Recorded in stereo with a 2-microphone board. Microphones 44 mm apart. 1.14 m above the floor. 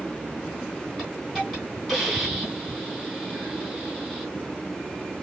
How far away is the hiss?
About 2.5 m.